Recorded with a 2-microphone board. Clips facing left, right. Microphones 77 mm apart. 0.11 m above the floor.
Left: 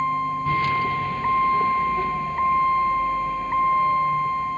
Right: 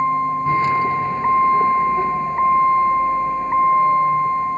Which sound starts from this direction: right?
A vehicle, at 0.0 s.